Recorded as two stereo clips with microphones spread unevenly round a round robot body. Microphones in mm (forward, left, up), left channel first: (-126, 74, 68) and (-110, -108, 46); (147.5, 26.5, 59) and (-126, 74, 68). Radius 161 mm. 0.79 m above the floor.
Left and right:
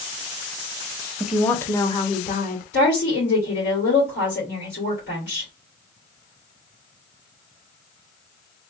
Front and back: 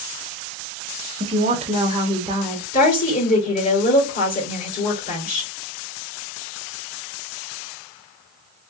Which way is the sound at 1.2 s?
145° right.